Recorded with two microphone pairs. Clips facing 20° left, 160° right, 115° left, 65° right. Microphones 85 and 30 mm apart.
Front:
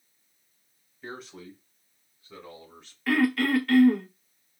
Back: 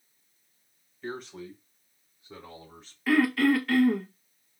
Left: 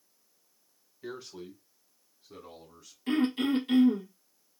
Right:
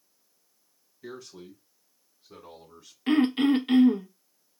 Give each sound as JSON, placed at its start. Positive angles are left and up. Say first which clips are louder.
{"t": 1.0, "sound": "a man speaking", "louder": "back 3 dB, left 1 dB", "azimuth_deg": 100, "distance_m": 1.2}
{"t": 3.1, "sound": "throat clearing", "louder": "back 1 dB, right 5 dB", "azimuth_deg": -75, "distance_m": 0.6}